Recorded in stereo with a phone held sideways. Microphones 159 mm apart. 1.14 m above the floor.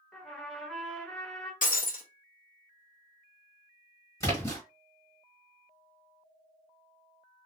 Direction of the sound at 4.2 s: 20° left (ahead or behind).